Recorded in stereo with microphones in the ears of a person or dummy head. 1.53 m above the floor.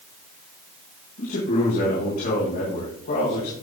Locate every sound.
1.2 s a man speaking: 60° left (ahead or behind), 5 m